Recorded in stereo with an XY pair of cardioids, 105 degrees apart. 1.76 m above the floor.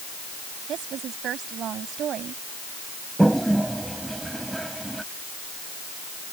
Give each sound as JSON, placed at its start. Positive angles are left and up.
{"t": 0.7, "sound": "a woman speaking", "azimuth_deg": -70}
{"t": 3.2, "sound": "a toilet flushing", "azimuth_deg": -10}